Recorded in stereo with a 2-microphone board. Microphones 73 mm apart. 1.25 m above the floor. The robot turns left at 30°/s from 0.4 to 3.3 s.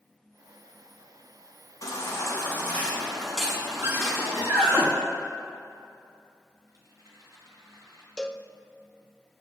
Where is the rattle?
45° right (ahead or behind), 5.5 m.